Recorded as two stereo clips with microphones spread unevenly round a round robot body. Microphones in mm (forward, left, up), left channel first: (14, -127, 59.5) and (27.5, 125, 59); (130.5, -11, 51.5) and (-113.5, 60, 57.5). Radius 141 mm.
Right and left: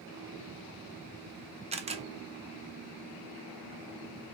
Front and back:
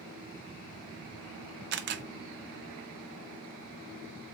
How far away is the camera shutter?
About 0.7 m.